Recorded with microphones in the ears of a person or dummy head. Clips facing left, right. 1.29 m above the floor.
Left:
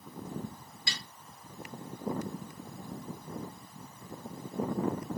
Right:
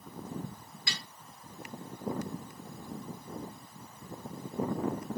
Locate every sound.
0.9 s a snare drum: 30° left (ahead or behind), 2 m